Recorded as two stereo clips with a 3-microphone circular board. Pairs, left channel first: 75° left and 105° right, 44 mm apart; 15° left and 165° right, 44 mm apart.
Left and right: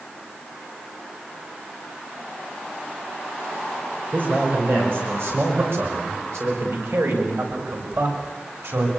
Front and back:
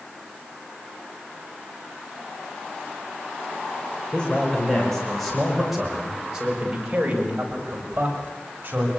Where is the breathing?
I don't hear breathing.